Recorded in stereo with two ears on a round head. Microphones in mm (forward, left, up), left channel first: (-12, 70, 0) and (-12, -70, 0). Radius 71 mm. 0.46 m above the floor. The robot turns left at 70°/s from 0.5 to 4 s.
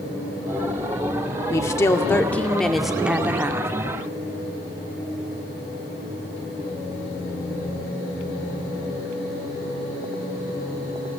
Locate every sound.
1.5 s a woman speaking: 20° left (ahead or behind), 0.7 m; by 3.7 s 15° right (ahead or behind), 0.7 m